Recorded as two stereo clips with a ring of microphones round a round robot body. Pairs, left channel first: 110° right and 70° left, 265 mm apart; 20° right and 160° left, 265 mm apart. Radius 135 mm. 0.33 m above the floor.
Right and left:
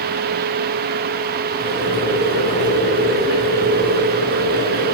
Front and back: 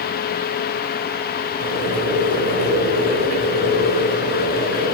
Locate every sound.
1.6 s boiling: 165° right, 4.5 m